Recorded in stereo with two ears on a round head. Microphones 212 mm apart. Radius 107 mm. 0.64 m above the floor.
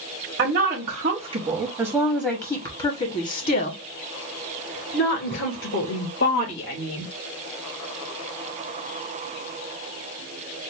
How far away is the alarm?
No alarm in this recording.